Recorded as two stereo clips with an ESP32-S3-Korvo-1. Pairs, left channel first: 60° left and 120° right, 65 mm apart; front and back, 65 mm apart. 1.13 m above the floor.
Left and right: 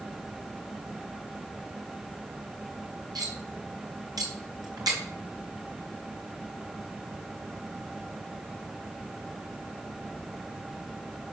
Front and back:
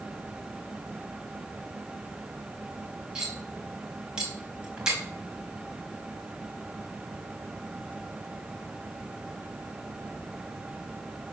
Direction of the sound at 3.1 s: 100° right.